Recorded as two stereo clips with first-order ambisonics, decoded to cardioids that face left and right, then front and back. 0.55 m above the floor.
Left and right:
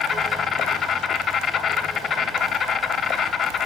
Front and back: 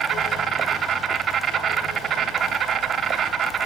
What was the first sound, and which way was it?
An insect, 140° left.